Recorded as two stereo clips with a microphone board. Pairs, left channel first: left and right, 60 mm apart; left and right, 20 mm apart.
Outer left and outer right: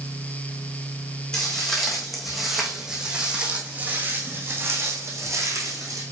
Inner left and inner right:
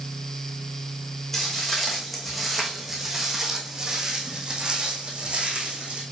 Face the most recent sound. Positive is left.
turn(degrees=-60)  # may be behind; listen again after turning